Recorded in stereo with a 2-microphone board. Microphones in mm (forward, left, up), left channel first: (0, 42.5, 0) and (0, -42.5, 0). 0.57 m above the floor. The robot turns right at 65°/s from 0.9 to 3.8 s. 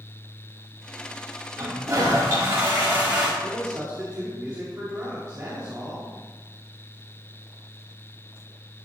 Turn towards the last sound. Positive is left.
turn(degrees=-40)  # may be behind; listen again after turning